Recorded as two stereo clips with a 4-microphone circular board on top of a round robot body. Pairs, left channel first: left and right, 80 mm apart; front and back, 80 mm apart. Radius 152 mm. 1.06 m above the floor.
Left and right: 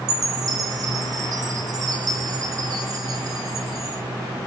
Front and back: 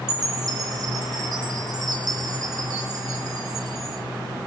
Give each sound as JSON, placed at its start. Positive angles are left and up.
{"t": 0.1, "sound": "a chime", "azimuth_deg": -135, "distance_m": 3.0}